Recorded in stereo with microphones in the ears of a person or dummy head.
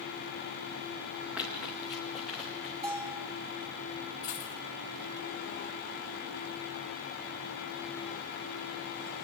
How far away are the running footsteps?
About 5 m.